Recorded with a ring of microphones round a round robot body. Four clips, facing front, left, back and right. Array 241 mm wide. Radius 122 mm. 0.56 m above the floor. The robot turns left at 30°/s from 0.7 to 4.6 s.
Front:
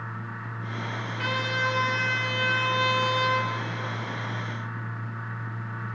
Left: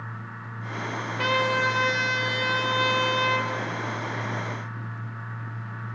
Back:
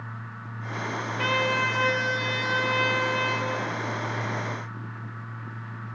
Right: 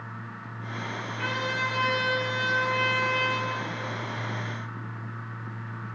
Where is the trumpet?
115° left, 3 m; by 3.5 s 45° left, 3 m.